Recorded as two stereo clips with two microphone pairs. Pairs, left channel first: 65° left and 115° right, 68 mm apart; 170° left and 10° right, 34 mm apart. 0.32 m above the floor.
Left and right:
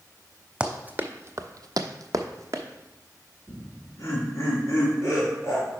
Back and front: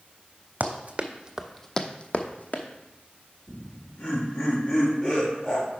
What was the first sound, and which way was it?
Running footsteps, 45° right.